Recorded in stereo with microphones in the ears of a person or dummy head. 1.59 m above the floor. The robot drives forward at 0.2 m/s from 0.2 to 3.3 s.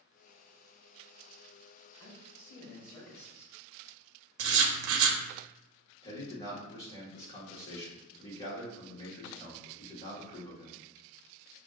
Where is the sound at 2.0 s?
15° left (ahead or behind), 1.2 m.